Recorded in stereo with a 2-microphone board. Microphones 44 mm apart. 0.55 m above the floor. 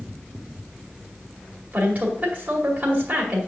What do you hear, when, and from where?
1.7 s a woman speaking: 35° right (ahead or behind), 2.5 m